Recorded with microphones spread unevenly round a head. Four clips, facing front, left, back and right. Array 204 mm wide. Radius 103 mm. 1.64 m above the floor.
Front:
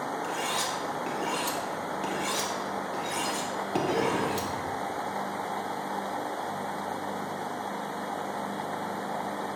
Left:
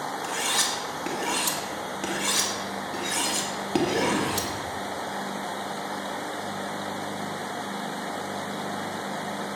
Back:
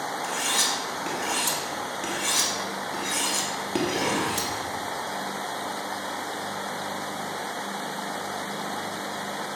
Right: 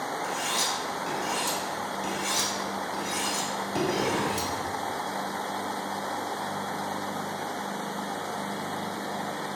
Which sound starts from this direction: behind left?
Cutlery clinking, at 0.2 s.